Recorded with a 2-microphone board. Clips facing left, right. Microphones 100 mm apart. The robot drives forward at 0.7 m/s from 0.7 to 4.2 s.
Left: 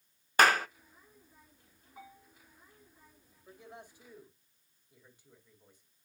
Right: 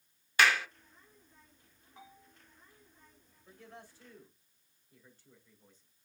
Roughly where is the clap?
Left.